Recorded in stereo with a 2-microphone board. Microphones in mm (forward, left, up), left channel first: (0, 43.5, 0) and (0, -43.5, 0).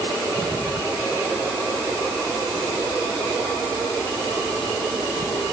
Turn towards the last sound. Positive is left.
No sound to turn to.